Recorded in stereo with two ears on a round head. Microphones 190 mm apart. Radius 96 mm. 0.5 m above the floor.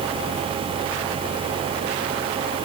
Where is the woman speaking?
I don't hear a woman speaking.